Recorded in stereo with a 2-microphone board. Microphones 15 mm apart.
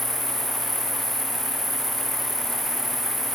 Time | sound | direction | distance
0.0 | an insect | 20° right (ahead or behind) | ?